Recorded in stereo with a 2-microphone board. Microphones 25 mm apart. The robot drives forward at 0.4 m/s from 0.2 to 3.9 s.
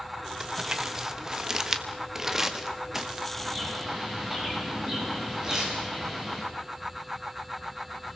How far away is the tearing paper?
About 9 m.